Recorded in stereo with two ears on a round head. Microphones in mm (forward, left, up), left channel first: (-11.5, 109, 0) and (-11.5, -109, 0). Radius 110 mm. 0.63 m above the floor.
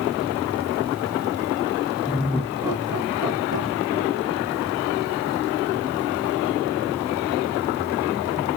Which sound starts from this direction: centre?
Laughter, at 2.0 s.